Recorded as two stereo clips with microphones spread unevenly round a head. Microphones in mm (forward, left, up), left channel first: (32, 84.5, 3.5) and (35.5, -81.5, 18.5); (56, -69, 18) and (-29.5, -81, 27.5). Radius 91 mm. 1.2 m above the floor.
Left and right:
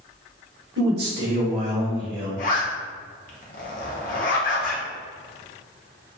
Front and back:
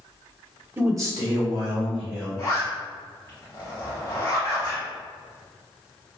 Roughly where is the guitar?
I don't hear a guitar.